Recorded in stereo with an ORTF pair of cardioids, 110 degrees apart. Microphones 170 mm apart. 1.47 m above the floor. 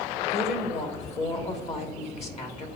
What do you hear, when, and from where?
0.3 s a woman speaking: 40° left, 1.5 m